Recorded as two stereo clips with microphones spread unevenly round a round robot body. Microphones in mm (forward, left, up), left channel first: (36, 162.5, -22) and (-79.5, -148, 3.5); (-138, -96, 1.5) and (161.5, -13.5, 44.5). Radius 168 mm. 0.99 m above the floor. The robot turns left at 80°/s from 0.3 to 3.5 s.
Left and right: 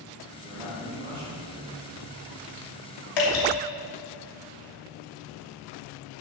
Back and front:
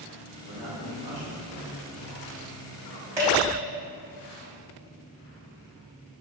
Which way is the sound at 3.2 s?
95° left.